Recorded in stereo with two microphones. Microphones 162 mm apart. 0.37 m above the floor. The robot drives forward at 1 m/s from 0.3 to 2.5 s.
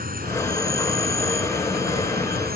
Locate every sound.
0.0 s an insect: 65° right (ahead or behind); by 2.6 s 70° right (ahead or behind)